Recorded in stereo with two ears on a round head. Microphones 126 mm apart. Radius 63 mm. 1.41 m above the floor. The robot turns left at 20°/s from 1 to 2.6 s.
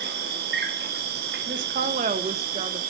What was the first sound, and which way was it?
An insect, 80° right.